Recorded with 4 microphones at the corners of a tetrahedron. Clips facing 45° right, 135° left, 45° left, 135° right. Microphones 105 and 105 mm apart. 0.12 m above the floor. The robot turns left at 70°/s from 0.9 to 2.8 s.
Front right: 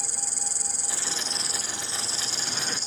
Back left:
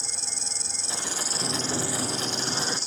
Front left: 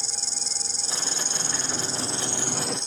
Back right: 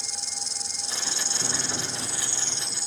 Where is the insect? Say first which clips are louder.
Front right 2 dB, front left 1 dB; 80° left; by 2.9 s 50° right.